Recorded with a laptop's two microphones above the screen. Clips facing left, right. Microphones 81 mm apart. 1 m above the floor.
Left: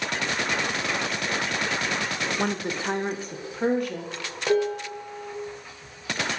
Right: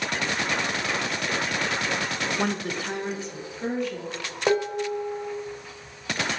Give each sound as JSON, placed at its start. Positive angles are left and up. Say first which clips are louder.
{"t": 2.4, "sound": "a woman speaking", "louder": "left 1 dB", "side_deg": -5, "distance_m": 0.5}
{"t": 4.5, "sound": "dishes clattering", "louder": "even", "side_deg": -30, "distance_m": 1.0}